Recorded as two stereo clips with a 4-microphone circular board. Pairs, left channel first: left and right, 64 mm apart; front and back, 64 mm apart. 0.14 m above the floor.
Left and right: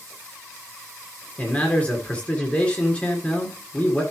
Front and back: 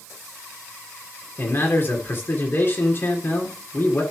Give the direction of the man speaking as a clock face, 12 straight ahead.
11 o'clock.